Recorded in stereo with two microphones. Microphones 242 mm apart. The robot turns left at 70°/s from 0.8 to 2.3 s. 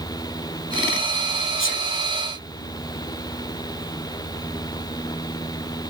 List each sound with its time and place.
1.6 s a sneeze: 60° left (ahead or behind), 4 m; by 1.8 s 45° left (ahead or behind), 4 m